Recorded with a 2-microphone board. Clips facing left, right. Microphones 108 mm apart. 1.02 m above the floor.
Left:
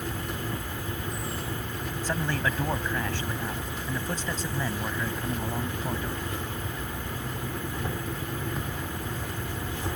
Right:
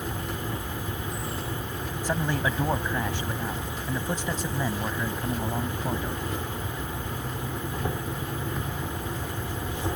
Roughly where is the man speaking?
Centre.